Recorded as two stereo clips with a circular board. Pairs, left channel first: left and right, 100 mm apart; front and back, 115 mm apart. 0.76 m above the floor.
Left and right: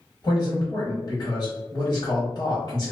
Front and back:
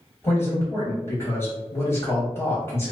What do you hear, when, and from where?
0.2 s a man speaking: 60° left, 1.3 m